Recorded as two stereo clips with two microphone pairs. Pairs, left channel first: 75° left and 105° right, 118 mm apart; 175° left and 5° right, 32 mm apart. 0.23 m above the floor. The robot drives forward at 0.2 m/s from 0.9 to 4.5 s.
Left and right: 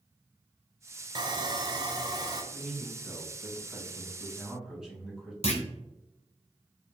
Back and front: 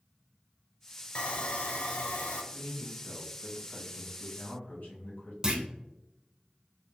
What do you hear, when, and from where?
1.1 s sawing: 140° right, 0.5 m; by 2.4 s 155° right, 0.7 m
2.5 s a man speaking: 170° left, 1.7 m; by 5.3 s 175° left, 2 m
5.4 s a clunk: 60° left, 0.7 m